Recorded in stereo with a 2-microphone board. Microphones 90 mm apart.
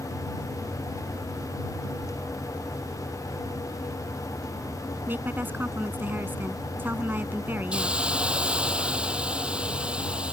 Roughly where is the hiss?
Centre.